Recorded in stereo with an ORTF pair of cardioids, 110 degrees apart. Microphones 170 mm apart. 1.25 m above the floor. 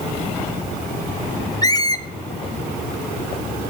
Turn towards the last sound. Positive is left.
turn(degrees=25)